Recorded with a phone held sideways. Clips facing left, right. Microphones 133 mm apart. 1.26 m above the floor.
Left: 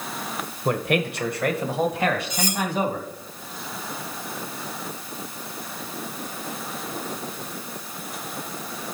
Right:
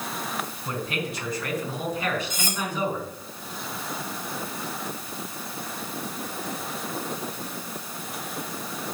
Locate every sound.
0.7 s a man speaking: 65° left (ahead or behind), 1.2 m; by 3.1 s 60° left (ahead or behind), 3 m
2.3 s cutlery clinking: 50° right (ahead or behind), 1.7 m